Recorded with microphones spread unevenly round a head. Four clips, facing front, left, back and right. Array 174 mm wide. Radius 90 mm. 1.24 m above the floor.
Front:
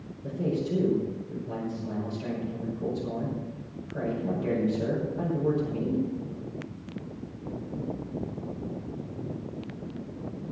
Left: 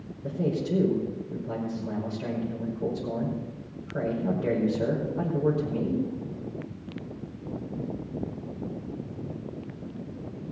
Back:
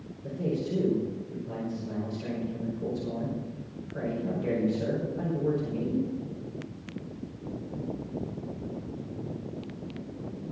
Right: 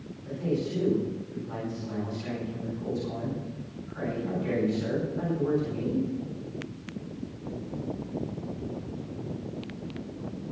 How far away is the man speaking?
About 5.5 m.